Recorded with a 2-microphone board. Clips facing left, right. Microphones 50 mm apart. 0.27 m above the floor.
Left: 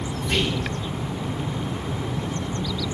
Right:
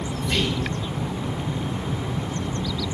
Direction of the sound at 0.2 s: 35° left (ahead or behind).